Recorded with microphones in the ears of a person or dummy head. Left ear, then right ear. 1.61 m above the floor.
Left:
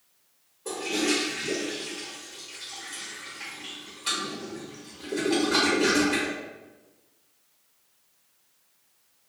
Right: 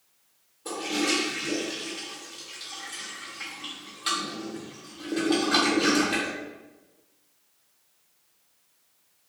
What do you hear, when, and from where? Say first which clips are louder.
0.7 s a toilet flushing: even; 35° right (ahead or behind), 1.6 m